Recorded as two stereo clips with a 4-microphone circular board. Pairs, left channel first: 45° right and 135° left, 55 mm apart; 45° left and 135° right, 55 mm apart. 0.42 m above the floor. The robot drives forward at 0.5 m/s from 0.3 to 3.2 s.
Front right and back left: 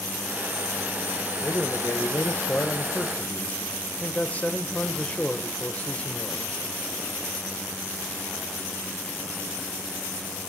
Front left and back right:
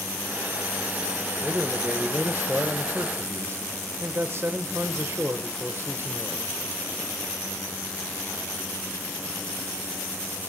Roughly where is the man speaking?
Ahead right.